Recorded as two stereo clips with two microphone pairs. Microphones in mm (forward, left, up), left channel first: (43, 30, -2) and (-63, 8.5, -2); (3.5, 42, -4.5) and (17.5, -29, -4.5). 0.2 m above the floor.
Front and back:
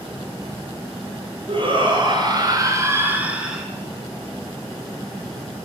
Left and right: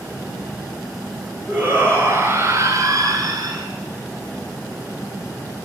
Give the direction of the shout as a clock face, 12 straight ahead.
5 o'clock.